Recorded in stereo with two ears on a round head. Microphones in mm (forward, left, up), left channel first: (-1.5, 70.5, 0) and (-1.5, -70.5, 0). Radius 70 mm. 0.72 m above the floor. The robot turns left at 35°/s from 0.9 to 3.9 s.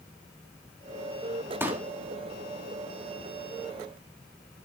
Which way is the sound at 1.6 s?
15° right (ahead or behind).